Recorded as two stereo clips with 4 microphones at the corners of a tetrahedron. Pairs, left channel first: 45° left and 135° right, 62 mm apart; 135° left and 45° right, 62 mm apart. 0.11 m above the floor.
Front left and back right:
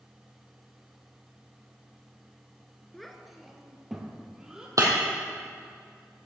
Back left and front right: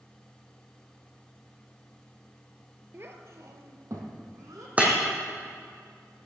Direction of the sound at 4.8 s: 110° right.